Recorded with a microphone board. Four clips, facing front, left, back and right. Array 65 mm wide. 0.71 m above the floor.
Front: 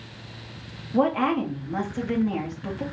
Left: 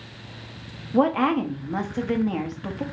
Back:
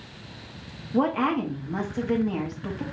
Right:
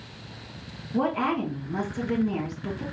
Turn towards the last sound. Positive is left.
turn(degrees=80)